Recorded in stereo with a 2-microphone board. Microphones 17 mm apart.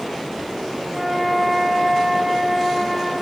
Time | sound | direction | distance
0.9 | a flute | 10° right (ahead or behind) | 1.2 m